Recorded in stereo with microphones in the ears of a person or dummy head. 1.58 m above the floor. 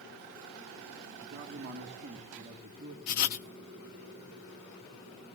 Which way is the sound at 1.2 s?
40° right (ahead or behind).